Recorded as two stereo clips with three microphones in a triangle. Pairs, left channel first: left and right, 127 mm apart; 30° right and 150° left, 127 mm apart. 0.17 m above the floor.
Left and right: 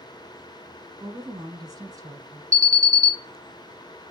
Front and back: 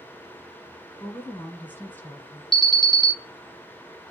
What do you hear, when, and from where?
1.0 s a woman speaking: 90° right, 1.2 m
2.5 s an alarm: 115° right, 1.1 m